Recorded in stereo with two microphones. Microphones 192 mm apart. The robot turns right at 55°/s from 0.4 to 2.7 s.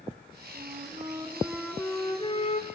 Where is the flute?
60° right, 2 m; by 2.7 s 55° left, 2 m.